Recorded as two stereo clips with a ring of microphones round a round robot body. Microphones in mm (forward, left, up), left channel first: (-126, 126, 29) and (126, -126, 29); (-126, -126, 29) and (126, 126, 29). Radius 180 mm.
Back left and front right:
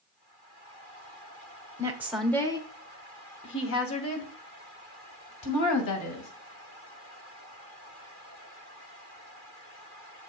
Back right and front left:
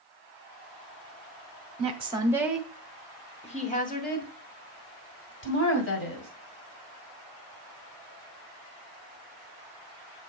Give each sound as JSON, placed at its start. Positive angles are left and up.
{"t": 1.8, "sound": "a woman speaking", "azimuth_deg": 15, "distance_m": 1.2}